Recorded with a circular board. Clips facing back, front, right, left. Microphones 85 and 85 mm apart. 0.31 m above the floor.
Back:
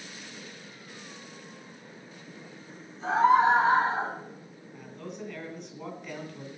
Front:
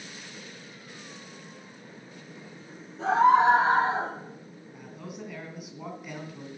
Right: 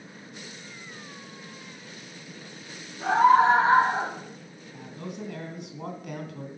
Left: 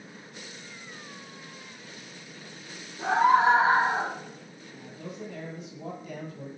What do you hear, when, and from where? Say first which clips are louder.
3.0 s a scream: front 2 dB, right 3 dB; 15° left, 5.5 m
4.7 s a man speaking: back 1 dB, right 3 dB; 85° right, 3 m